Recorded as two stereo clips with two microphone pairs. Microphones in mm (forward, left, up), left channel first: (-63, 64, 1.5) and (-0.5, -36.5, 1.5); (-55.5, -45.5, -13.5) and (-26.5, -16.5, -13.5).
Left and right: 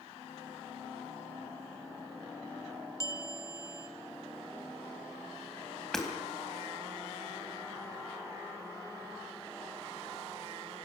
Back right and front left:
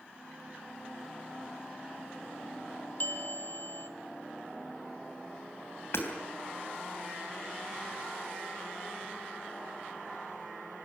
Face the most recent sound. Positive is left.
turn(degrees=-150)